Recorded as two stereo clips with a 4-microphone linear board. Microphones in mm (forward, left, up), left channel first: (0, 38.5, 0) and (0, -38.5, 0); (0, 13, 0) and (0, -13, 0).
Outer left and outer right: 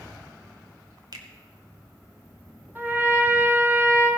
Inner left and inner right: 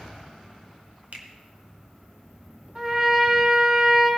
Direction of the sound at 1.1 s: 60° right (ahead or behind).